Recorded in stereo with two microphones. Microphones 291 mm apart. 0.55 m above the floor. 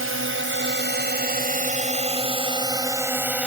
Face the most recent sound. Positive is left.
turn(degrees=-5)  # may be behind; listen again after turning